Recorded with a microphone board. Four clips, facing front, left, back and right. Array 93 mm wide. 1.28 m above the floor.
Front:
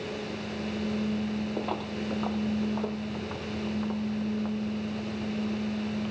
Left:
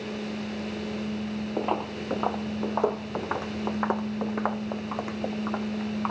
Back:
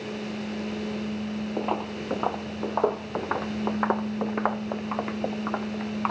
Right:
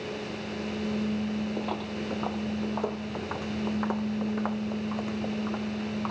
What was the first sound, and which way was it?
Footsteps, 120° left.